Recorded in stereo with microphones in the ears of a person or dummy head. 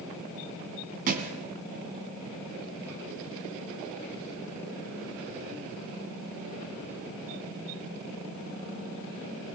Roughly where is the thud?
Right.